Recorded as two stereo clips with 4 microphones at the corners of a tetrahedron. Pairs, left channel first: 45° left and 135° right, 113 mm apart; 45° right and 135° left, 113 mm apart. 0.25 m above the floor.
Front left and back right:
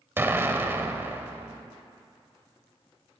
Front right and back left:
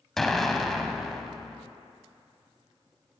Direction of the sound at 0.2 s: 125° right.